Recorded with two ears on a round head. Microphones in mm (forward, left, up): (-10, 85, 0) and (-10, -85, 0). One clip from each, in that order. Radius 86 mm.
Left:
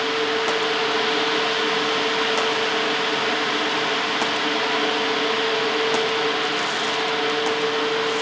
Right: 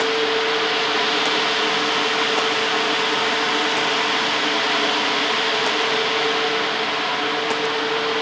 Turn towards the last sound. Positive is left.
No sound to turn to.